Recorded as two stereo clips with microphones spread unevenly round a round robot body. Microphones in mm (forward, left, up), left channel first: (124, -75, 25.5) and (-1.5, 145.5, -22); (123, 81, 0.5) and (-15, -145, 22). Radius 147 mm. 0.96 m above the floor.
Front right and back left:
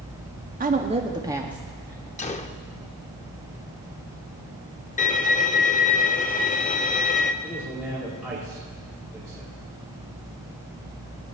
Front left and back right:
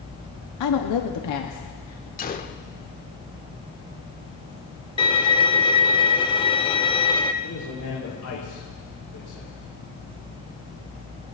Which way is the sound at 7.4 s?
35° left.